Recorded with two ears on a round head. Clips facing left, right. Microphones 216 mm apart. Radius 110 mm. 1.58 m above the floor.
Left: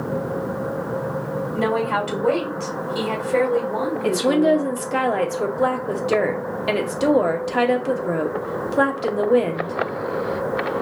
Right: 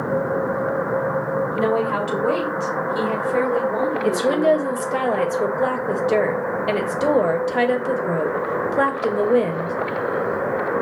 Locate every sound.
1.5 s a woman speaking: 5° left (ahead or behind), 2 m
4.0 s a woman speaking: 5° left (ahead or behind), 0.8 m